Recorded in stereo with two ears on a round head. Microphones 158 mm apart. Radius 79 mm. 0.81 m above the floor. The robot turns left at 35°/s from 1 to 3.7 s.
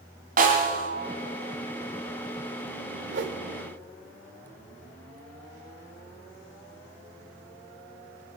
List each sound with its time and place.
0.4 s a snare drum: 50° right (ahead or behind), 2.0 m
3.1 s a whoosh: 75° right (ahead or behind), 1.0 m; by 3.4 s 70° right (ahead or behind), 1.0 m